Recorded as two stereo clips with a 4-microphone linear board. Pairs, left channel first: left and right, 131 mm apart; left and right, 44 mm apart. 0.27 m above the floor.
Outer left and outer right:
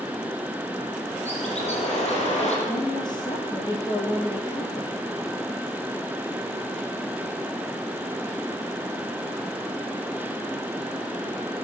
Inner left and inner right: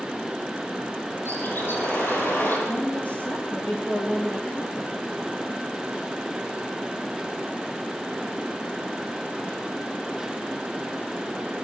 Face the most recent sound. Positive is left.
turn(degrees=35)  # may be behind; listen again after turning